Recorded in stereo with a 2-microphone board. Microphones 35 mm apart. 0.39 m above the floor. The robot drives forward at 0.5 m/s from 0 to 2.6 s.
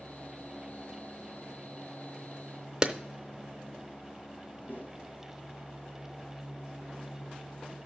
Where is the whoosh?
55° left (ahead or behind), 4 m.